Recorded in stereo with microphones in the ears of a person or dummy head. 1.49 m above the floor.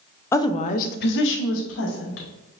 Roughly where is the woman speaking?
Centre.